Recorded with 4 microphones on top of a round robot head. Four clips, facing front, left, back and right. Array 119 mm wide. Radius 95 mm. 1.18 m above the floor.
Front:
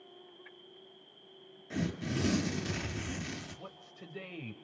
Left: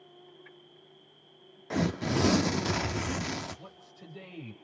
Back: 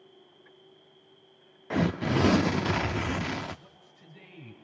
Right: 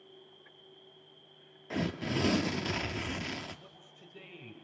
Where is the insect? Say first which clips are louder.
Left 3 dB, front 2 dB; 30° left, 3.5 m.